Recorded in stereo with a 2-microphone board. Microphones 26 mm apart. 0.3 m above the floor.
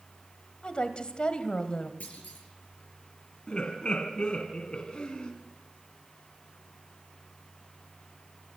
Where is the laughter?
45° left (ahead or behind), 2.5 m.